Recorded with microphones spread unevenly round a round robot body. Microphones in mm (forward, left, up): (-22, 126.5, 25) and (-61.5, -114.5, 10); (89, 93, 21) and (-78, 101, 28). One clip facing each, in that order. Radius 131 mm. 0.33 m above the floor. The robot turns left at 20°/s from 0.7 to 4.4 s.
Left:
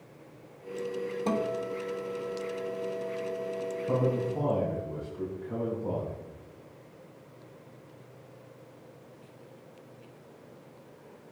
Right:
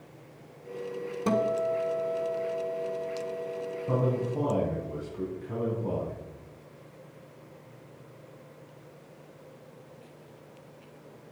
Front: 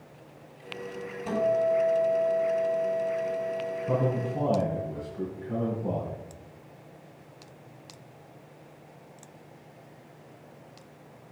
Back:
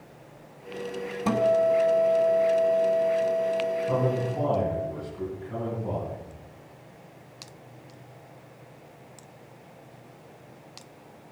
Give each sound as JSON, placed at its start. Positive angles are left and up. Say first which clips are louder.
{"t": 1.3, "sound": "a guitar", "louder": "right 5 dB, back 3 dB", "azimuth_deg": -170, "distance_m": 1.4}
{"t": 3.9, "sound": "a man speaking", "louder": "even, back 2 dB", "azimuth_deg": -40, "distance_m": 4.0}